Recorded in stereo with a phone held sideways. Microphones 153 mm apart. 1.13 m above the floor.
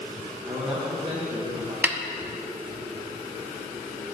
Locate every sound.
0.4 s a man speaking: 35° right (ahead or behind), 1.6 m
1.8 s a snare drum: 10° right (ahead or behind), 0.6 m